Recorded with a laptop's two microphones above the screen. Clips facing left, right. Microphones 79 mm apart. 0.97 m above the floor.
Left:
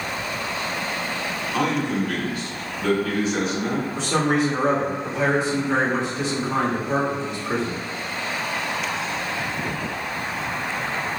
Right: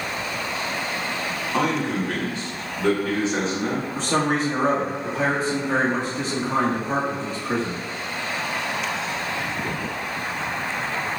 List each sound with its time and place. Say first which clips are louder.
1.5 s a man speaking: even; 30° right (ahead or behind), 1.5 m
4.0 s a man speaking: left 1 dB; 40° right (ahead or behind), 1.7 m